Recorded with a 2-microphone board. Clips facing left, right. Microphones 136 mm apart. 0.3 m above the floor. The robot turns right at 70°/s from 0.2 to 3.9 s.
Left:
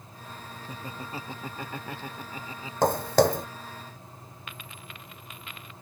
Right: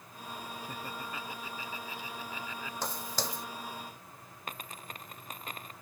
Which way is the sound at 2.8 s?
65° left (ahead or behind).